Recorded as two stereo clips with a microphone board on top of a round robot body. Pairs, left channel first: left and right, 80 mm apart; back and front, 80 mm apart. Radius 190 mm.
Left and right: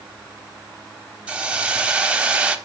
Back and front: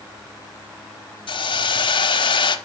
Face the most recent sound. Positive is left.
turn(degrees=-165)